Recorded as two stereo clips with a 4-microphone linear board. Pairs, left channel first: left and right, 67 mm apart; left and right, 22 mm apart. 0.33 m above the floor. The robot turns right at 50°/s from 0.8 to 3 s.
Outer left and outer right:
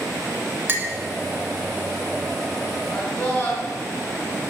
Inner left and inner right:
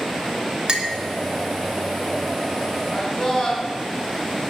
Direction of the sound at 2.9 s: 30° left (ahead or behind).